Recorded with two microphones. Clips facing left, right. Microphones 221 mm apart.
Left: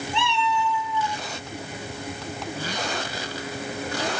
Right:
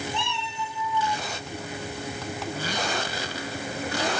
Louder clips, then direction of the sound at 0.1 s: Left 7 dB; 75° left (ahead or behind).